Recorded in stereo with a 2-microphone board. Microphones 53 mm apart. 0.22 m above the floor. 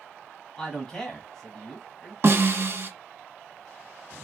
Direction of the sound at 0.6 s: 15° left (ahead or behind).